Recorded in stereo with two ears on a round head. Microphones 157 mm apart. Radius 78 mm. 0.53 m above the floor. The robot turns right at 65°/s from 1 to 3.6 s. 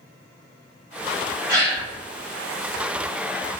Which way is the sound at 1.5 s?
25° right (ahead or behind).